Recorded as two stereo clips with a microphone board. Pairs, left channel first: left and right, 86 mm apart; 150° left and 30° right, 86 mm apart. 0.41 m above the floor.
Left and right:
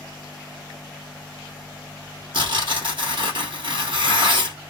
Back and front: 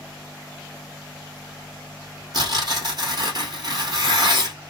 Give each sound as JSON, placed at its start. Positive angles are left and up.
{"t": 2.3, "sound": "tearing paper", "azimuth_deg": -65, "distance_m": 1.8}